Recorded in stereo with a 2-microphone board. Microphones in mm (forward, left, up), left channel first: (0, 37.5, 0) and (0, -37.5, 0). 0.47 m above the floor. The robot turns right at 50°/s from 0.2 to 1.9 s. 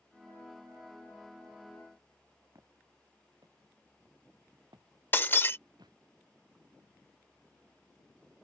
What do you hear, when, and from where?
2.5 s footsteps: 45° right (ahead or behind); by 6.0 s 75° right (ahead or behind)
5.1 s breaking glass: 30° left (ahead or behind)